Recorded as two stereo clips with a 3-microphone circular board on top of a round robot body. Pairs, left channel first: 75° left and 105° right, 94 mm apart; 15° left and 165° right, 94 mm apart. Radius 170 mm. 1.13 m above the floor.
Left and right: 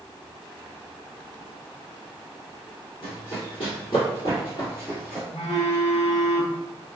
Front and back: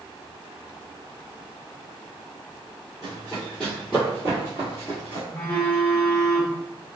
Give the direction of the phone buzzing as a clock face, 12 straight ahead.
9 o'clock.